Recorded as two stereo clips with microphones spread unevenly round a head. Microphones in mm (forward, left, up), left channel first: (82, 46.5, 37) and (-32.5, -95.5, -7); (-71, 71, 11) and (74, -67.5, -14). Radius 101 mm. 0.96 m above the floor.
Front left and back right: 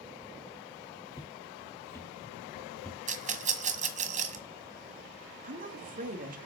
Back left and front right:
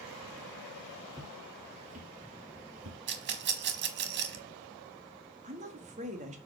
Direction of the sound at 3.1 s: 75° right.